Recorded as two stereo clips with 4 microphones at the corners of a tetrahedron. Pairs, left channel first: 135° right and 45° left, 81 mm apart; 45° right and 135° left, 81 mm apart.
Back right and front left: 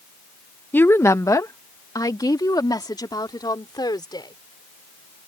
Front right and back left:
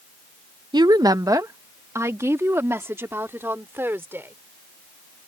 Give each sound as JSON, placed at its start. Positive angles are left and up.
{"t": 0.7, "sound": "a woman speaking", "azimuth_deg": 160}